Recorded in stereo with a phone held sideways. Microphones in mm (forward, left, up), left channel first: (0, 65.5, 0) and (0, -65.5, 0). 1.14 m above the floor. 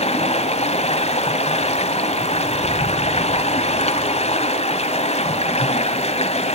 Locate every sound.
0.0 s running water: 55° left (ahead or behind), 1.5 m